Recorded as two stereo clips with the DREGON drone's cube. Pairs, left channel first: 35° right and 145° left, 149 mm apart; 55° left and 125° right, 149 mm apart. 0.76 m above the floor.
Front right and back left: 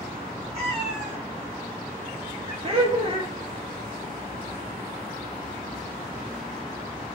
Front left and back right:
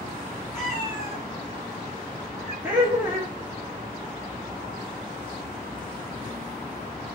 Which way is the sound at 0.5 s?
95° left.